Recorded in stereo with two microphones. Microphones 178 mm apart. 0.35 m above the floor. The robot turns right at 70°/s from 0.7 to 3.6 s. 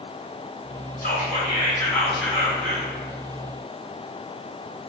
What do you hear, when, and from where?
1.0 s whispering: 100° left, 1.8 m; by 2.9 s 125° right, 1.8 m